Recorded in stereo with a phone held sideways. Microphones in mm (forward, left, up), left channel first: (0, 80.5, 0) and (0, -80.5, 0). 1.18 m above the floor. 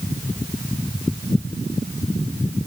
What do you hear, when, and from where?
Only background noise.